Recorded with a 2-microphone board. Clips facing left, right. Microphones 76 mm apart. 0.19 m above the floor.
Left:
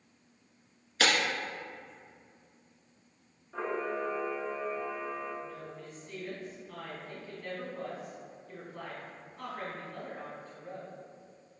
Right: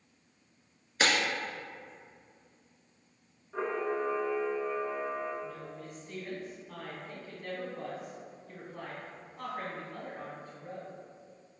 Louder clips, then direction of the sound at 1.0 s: Even; 20° right (ahead or behind).